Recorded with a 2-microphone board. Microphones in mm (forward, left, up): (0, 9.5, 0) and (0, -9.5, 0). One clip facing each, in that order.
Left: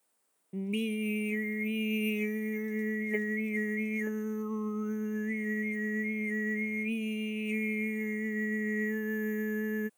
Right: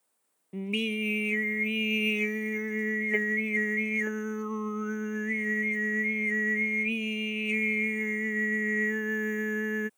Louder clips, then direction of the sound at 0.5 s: Right 3 dB; 35° right (ahead or behind).